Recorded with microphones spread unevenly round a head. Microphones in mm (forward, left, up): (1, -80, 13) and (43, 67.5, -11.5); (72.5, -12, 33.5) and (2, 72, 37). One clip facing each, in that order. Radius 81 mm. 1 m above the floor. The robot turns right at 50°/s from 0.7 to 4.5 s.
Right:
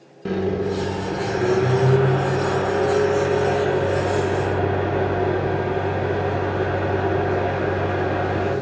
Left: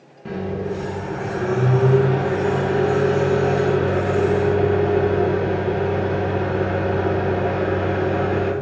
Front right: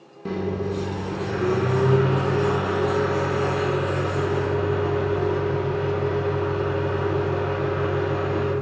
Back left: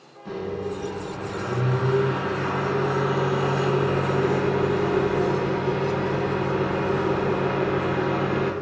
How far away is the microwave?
About 0.6 m.